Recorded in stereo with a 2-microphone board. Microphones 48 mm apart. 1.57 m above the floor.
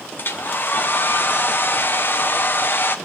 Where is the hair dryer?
50° left (ahead or behind), 0.8 m.